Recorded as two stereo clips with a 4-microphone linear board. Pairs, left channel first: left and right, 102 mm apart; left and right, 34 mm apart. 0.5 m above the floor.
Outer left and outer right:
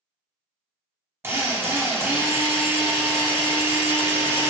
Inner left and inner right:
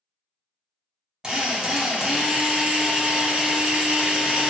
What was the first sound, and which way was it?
A drill, 25° right (ahead or behind).